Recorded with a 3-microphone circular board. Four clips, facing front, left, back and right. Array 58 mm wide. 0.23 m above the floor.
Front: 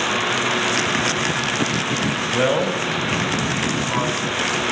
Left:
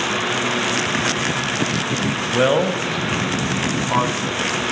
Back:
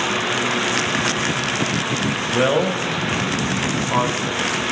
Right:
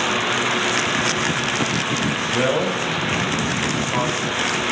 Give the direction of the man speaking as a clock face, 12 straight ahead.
9 o'clock.